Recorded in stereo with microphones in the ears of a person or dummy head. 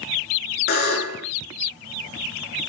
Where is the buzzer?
50° left (ahead or behind), 6.5 m.